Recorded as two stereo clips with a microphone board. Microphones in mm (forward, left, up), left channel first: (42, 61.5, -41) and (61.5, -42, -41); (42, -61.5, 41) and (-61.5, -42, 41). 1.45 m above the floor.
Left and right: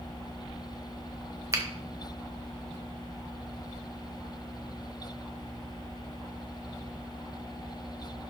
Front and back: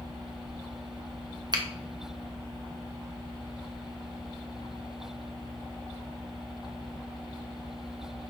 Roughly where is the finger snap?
Behind right.